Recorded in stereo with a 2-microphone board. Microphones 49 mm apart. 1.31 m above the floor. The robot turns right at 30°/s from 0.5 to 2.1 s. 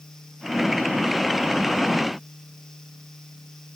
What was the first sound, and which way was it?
Only background noise.